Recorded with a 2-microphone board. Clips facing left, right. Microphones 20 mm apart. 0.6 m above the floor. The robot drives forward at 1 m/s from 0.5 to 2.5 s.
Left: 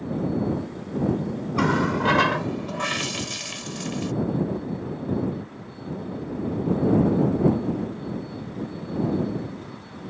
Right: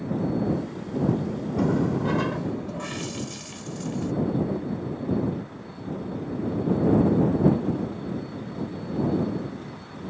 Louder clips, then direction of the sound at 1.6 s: Left 2 dB; 75° left (ahead or behind).